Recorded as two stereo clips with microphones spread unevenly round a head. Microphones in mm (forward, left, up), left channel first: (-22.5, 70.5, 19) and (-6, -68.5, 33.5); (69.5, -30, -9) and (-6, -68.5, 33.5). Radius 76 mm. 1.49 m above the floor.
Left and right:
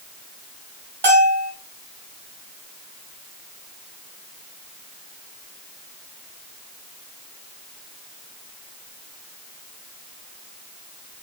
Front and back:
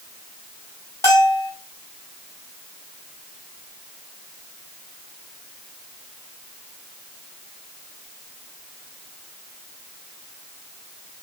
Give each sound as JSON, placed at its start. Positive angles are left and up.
{"t": 1.0, "sound": "a bell", "azimuth_deg": -45, "distance_m": 2.5}